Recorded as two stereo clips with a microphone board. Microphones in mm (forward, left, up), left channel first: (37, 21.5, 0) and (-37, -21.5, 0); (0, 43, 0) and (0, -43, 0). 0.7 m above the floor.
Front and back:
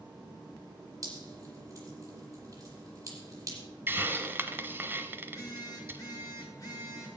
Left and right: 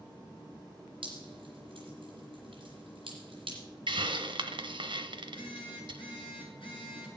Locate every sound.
1.0 s dripping: 105° right, 9.5 m
3.9 s a hiss: 85° right, 1.2 m
5.2 s a phone buzzing: 80° left, 7 m